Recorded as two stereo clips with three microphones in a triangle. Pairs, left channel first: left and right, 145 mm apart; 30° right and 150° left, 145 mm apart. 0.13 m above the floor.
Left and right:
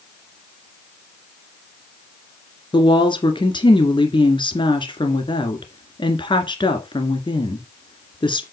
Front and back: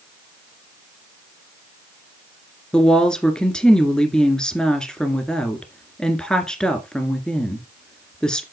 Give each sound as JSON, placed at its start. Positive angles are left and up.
{"t": 2.7, "sound": "a woman speaking", "azimuth_deg": 50, "distance_m": 1.9}